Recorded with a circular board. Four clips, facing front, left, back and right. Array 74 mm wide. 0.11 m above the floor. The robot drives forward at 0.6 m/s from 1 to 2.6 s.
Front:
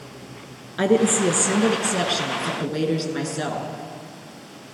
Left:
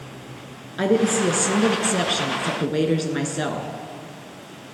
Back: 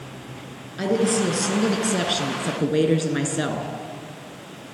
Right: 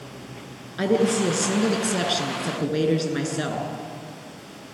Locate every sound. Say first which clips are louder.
0.8 s a woman speaking: left 1 dB, front 3 dB; 15° left, 1.3 m; by 3.7 s 155° left, 1.2 m